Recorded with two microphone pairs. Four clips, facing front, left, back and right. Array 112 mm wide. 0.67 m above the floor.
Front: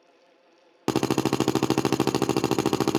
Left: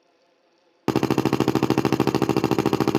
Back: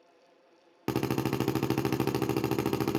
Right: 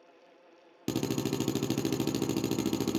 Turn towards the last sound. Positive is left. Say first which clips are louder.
# left 11 dB, front 6 dB
turn(degrees=70)